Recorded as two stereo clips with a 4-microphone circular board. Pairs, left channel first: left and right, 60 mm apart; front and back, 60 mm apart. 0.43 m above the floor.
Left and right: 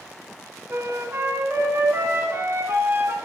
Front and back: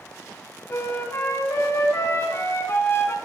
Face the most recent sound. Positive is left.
turn(degrees=-45)